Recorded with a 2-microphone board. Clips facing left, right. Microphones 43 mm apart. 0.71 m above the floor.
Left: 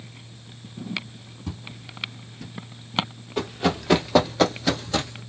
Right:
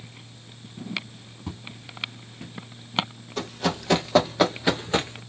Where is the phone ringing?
No phone ringing in this recording.